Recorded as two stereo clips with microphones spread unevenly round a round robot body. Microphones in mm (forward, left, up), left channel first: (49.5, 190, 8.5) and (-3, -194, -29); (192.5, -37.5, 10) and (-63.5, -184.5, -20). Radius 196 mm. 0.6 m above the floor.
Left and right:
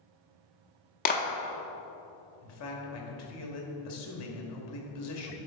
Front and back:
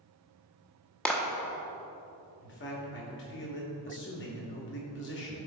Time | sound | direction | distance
1.1 | a clap | 125° left | 0.7 m
2.4 | a man speaking | 60° left | 1.3 m